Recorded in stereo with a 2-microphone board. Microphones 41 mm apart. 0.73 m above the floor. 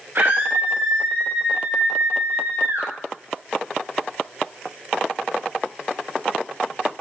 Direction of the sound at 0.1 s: 50° right (ahead or behind).